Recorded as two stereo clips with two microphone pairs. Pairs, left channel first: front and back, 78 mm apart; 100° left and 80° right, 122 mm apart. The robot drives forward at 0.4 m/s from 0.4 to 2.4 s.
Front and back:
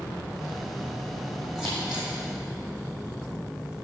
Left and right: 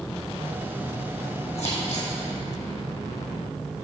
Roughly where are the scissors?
Left.